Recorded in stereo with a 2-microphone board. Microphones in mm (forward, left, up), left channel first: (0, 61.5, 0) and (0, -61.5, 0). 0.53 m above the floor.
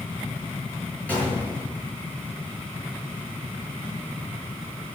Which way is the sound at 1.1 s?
10° left (ahead or behind).